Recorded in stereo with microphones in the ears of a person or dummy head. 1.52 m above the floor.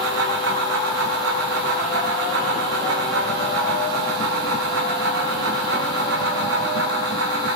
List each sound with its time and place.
0.0 s a fan: 70° right (ahead or behind), 3 m